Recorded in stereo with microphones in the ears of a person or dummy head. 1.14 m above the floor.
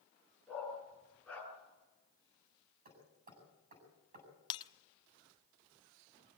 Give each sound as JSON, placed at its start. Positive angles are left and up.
{"t": 0.5, "sound": "a dog barking", "side_deg": 15, "distance_m": 7.0}
{"t": 2.9, "sound": "hammering", "side_deg": -50, "distance_m": 7.5}
{"t": 4.5, "sound": "breaking glass", "side_deg": 30, "distance_m": 0.9}